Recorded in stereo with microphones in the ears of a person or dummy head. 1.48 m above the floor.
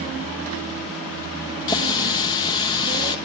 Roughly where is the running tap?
Left.